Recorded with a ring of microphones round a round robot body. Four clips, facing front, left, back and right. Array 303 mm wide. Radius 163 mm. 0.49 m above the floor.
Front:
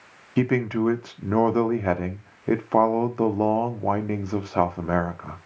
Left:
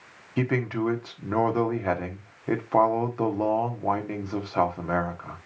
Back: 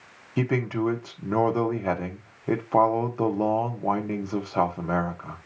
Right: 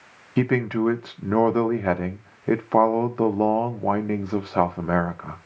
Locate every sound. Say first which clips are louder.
0.4 s a man speaking: right 5 dB, front 3 dB; 55° right, 1.3 m